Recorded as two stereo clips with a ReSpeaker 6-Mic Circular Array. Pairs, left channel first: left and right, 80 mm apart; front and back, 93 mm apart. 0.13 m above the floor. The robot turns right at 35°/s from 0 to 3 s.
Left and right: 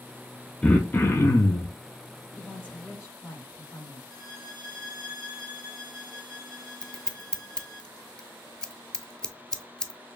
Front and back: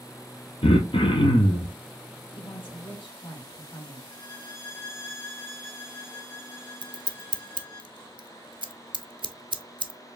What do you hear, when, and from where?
0.6 s throat clearing: 10° left, 0.9 m; by 1.8 s 50° left, 0.9 m
2.4 s a woman speaking: 5° left, 3 m; by 4.0 s 25° left, 3 m
4.1 s a violin: 35° left, 2 m
6.8 s scissors: 170° left, 0.6 m